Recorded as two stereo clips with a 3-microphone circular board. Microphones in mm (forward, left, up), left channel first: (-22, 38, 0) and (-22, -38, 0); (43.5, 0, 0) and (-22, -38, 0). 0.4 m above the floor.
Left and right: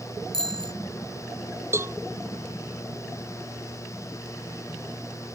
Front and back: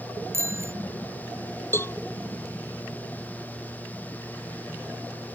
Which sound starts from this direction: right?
A bicycle bell, at 0.3 s.